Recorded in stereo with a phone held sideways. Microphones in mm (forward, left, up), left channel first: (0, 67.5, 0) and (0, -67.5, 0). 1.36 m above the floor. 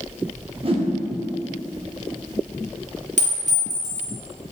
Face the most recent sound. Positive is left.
turn(degrees=-60)  # may be behind; listen again after turning